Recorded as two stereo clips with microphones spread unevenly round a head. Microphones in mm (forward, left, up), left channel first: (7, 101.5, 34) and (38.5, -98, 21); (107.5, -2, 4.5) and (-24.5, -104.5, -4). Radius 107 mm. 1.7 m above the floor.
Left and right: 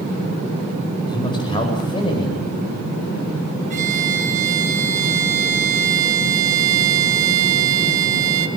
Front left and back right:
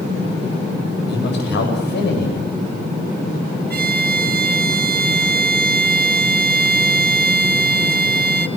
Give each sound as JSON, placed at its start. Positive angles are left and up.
{"t": 1.1, "sound": "a man speaking", "azimuth_deg": 30, "distance_m": 10.0}
{"t": 3.7, "sound": "a violin", "azimuth_deg": -135, "distance_m": 3.0}